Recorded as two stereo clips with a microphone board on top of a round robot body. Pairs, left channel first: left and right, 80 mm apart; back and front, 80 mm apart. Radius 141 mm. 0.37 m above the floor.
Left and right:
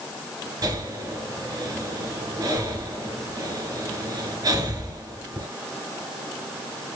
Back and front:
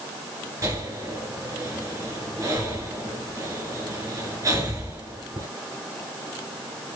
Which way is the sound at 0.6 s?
50° right.